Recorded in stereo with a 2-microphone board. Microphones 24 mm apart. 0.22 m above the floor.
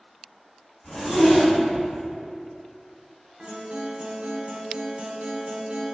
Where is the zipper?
40° left (ahead or behind), 1.9 m.